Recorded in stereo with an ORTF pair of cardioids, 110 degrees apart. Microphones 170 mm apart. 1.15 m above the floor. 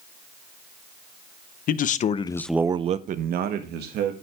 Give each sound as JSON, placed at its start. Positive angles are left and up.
{"t": 1.7, "sound": "a man speaking", "azimuth_deg": 60, "distance_m": 0.9}